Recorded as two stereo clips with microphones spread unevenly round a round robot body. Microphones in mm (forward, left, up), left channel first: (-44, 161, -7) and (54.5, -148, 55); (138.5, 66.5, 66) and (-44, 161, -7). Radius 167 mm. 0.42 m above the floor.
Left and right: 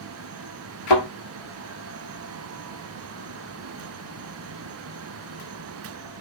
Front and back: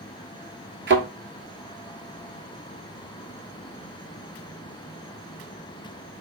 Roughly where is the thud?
Left.